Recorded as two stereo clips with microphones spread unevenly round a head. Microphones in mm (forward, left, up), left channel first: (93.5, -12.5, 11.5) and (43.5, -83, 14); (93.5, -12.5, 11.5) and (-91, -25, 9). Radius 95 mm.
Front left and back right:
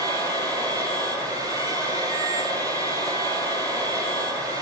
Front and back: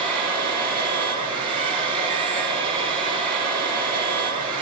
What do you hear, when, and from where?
0.0 s a machine running: 120° left, 9 m